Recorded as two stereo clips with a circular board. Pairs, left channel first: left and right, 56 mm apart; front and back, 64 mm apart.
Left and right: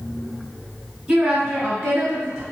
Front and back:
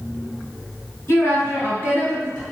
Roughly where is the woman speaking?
Ahead.